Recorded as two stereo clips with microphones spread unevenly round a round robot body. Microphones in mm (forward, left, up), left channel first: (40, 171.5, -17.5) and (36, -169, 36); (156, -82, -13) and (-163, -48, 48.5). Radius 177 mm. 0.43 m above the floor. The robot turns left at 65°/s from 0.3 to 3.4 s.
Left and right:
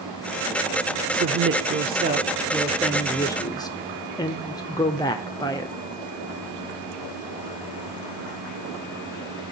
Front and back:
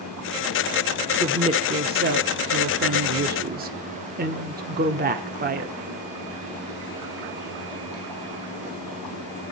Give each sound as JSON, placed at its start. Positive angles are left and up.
{"t": 1.1, "sound": "a woman speaking", "azimuth_deg": -90, "distance_m": 1.0}